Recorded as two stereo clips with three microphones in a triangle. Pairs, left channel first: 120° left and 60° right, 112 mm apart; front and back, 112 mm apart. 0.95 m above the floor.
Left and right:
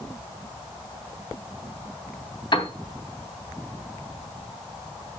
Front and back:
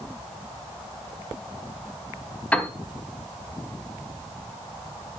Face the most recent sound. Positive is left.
turn(degrees=75)